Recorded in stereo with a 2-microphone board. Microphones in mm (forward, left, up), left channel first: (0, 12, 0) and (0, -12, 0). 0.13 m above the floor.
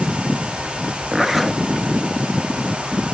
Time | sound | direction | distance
1.1 | a zipper | 15° right (ahead or behind) | 0.7 m